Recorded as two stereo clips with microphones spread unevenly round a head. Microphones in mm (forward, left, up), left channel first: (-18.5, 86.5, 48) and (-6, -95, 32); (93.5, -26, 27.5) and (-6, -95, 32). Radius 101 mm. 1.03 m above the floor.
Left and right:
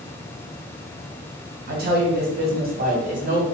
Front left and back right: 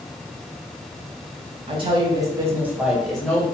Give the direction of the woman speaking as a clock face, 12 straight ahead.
4 o'clock.